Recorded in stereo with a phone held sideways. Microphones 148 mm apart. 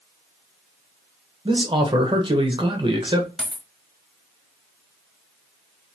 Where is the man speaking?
35° right (ahead or behind), 1.1 m.